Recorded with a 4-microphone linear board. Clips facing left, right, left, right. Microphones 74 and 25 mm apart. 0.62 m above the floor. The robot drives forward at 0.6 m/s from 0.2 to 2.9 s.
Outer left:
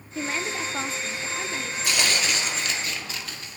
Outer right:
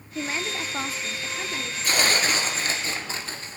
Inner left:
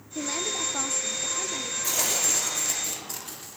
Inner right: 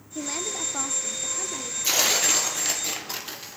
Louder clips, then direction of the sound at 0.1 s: Outer left 1 dB, inner left 1 dB; 5° right (ahead or behind).